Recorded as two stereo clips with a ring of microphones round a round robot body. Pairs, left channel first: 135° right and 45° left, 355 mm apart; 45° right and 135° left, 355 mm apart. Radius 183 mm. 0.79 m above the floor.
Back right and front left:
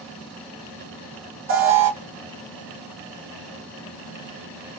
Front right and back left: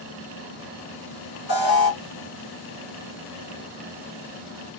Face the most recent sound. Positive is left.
turn(degrees=5)